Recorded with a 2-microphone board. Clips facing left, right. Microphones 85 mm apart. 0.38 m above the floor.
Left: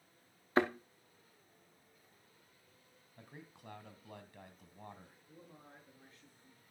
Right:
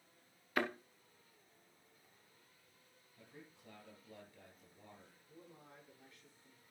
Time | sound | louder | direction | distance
0.6 | a thud | left 6 dB | 30° left (ahead or behind) | 2 m
3.2 | a man speaking | left 3 dB | 70° left (ahead or behind) | 3 m
5.3 | a man speaking | even | 35° left (ahead or behind) | 6.5 m